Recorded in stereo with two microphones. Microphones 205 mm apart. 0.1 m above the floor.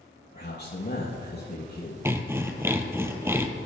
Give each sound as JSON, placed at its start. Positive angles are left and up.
{"t": 0.3, "sound": "a man speaking", "side_deg": 55, "distance_m": 2.5}
{"t": 2.0, "sound": "sawing", "side_deg": -10, "distance_m": 1.0}